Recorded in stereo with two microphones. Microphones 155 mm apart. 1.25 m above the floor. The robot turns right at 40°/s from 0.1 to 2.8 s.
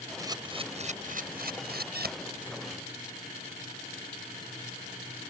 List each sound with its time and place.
0.2 s a camera shutter: 20° right (ahead or behind); by 2.1 s 80° right